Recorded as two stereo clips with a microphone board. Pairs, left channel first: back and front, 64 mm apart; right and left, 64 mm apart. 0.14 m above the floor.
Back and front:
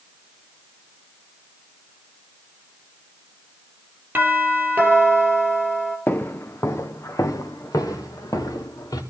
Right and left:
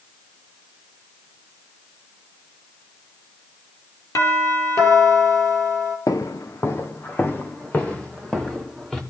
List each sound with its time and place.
4.2 s a doorbell: 60° right, 3.5 m
6.1 s footsteps: 120° right, 1.5 m; by 9.0 s 170° right, 3.5 m